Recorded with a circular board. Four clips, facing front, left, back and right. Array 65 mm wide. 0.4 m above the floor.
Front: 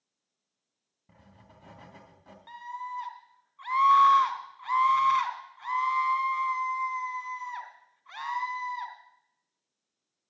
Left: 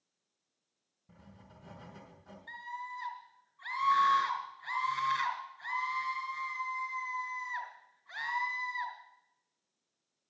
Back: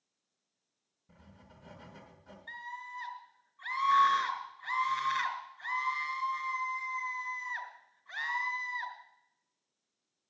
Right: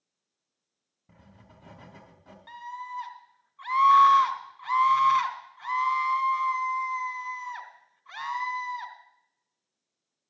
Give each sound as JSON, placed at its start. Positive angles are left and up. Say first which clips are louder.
{"t": 1.1, "sound": "writing", "louder": "right 2 dB, front 2 dB", "azimuth_deg": -35, "distance_m": 3.5}
{"t": 2.5, "sound": "a scream", "louder": "right 4 dB, front 6 dB", "azimuth_deg": -50, "distance_m": 3.0}